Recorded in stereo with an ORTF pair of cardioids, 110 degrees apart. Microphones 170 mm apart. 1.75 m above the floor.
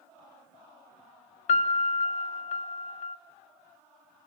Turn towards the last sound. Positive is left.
turn(degrees=45)